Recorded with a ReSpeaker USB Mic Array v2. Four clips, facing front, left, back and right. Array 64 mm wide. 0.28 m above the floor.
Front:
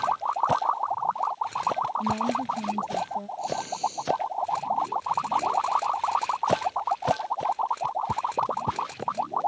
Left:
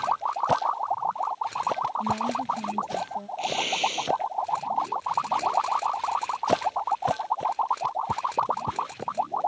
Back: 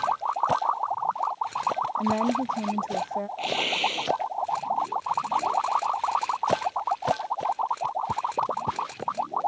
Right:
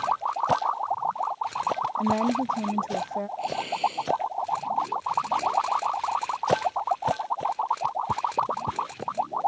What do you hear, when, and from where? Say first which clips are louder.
2.0 s a woman speaking: right 3 dB, back 2 dB; 135° right
3.4 s tearing paper: left 1 dB, back 1 dB; 165° left